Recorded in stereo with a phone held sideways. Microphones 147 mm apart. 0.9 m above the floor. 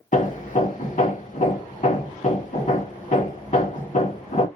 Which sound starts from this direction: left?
Hammering, at 0.1 s.